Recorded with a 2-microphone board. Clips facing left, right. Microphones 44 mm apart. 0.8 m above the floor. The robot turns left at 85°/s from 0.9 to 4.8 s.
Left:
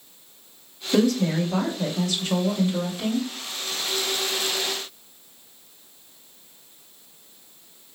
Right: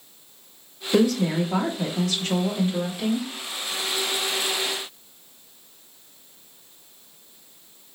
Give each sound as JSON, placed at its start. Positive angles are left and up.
{"t": 0.9, "sound": "a woman speaking", "azimuth_deg": 10, "distance_m": 1.6}